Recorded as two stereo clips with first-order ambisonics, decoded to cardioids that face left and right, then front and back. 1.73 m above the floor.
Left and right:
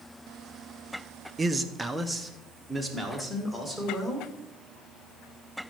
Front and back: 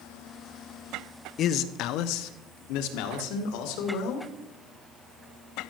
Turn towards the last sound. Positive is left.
turn(degrees=5)